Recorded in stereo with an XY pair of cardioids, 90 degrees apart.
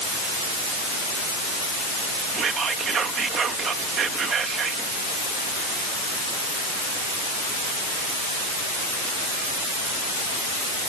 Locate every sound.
2.3 s whispering: 60° right